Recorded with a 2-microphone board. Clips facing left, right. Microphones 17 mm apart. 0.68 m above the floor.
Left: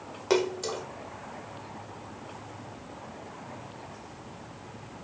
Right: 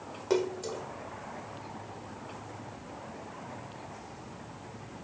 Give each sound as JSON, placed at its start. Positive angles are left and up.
{"t": 0.3, "sound": "a splash", "side_deg": 40}